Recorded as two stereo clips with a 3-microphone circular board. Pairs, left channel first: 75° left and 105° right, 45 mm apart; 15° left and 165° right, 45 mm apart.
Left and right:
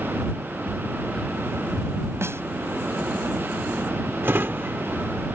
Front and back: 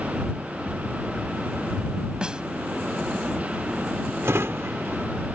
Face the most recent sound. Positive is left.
turn(degrees=-140)